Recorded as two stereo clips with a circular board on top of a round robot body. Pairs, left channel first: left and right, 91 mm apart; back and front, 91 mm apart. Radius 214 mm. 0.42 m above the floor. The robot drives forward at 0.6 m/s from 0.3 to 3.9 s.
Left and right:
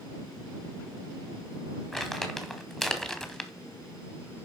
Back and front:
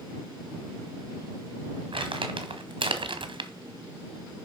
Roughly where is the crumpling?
Ahead.